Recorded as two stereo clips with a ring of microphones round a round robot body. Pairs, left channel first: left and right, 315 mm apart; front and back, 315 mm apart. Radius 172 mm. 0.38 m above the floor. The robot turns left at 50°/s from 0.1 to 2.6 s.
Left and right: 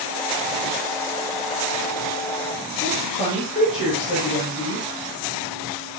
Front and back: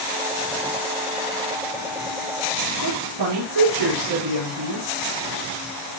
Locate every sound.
2.8 s a woman speaking: 165° left, 5.5 m